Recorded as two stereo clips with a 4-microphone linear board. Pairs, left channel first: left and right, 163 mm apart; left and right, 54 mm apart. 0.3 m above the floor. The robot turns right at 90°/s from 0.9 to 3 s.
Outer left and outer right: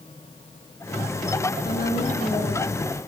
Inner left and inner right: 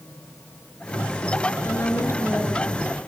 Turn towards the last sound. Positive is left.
turn(degrees=-155)